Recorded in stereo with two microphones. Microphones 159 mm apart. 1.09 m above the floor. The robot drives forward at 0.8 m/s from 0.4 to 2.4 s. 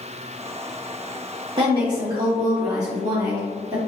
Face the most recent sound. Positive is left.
turn(degrees=-25)  # may be behind; listen again after turning